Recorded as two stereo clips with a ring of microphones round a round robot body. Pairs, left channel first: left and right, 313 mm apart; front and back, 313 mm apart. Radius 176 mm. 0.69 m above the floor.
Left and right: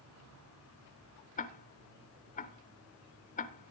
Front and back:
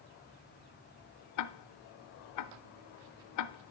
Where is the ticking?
25° left, 0.6 m.